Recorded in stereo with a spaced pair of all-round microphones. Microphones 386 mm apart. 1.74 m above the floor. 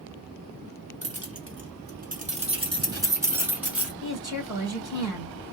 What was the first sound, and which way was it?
Keys jangling, 40° right (ahead or behind).